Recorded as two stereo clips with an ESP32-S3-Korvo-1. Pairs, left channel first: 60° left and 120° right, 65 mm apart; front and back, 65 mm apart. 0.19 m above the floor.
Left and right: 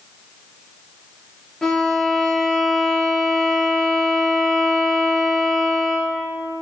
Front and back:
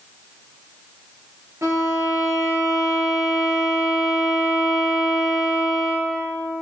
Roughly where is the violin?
Behind left.